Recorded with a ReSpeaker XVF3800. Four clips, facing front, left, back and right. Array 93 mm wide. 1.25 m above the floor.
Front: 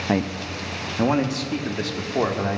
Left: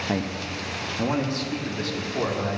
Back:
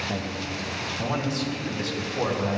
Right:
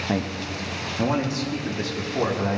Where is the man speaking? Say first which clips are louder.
Right 2 dB, front 6 dB; 5° right, 0.5 m.